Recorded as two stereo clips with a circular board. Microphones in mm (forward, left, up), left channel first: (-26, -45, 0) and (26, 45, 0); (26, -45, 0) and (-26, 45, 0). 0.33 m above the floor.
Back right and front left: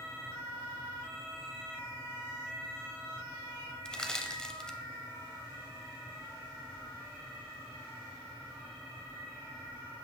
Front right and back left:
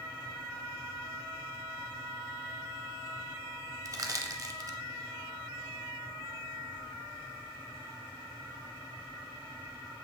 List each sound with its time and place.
3.9 s crushing: 160° left, 0.7 m